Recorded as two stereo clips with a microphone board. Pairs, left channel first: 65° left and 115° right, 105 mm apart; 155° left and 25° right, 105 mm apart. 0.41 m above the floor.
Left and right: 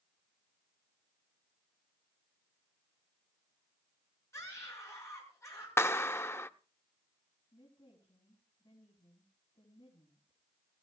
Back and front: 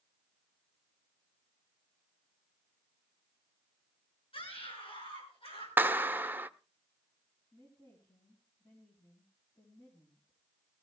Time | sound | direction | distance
4.3 | a scream | 130° left | 6 m
5.8 | a clap | 30° left | 0.6 m
7.5 | a woman speaking | 110° left | 4.5 m